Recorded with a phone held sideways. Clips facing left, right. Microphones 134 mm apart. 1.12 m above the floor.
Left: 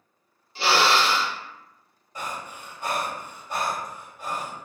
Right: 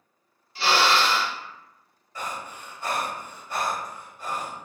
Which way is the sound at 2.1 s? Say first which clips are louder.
Even; 20° left (ahead or behind).